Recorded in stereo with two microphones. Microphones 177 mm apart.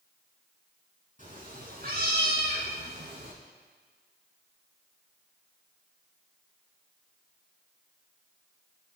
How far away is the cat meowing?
About 2.5 m.